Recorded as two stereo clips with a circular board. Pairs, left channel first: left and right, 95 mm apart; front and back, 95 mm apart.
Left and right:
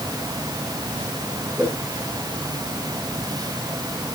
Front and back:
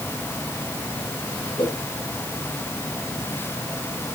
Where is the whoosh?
10° right, 8 m.